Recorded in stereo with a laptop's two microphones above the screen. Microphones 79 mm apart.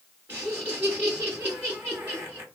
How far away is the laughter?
About 0.9 m.